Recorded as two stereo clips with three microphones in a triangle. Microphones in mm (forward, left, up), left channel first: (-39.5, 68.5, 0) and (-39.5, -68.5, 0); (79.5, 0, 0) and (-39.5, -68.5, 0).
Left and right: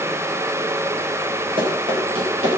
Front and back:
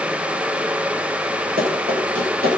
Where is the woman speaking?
I don't hear a woman speaking.